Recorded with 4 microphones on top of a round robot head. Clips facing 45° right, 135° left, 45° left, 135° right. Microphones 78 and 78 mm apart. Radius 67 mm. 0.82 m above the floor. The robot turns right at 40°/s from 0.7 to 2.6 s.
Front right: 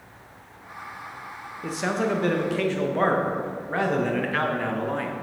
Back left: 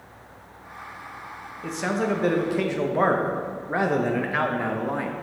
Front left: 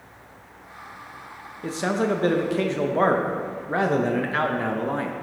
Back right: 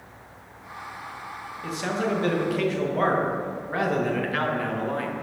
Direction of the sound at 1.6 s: 30° left.